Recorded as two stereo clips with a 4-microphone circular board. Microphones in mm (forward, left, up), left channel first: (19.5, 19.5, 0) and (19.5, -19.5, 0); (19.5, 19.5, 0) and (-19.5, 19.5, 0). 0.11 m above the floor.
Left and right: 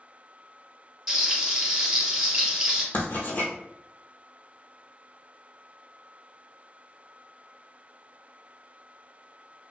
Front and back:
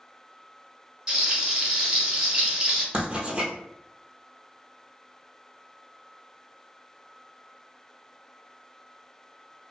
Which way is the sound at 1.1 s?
150° right.